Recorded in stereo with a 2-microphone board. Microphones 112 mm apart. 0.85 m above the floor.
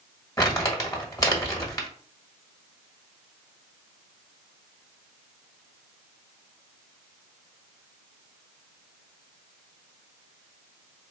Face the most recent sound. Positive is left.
turn(degrees=25)  # may be behind; listen again after turning